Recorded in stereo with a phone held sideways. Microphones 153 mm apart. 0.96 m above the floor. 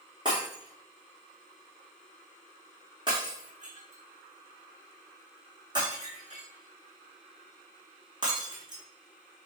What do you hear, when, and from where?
0.2 s breaking glass: 30° right (ahead or behind), 4 m